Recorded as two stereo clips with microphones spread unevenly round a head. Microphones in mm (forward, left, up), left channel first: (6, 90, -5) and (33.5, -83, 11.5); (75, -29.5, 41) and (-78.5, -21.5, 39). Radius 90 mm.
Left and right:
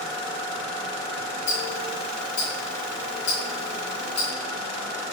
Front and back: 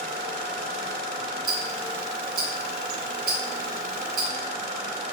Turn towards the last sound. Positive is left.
turn(degrees=150)